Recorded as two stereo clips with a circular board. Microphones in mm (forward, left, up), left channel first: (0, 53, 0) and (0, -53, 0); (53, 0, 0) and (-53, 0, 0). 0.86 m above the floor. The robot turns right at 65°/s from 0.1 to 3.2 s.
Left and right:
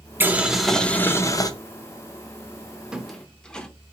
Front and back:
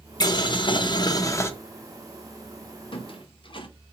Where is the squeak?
10° right, 0.6 m; by 3.7 s 10° left, 0.6 m.